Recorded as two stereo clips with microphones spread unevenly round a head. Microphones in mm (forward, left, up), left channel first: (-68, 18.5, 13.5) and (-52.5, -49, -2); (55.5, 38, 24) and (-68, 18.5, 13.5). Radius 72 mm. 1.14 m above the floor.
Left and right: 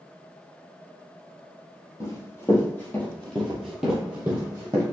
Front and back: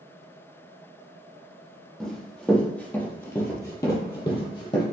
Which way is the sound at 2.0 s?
90° left.